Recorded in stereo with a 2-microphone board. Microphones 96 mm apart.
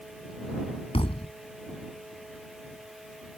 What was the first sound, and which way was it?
A thud, 85° left.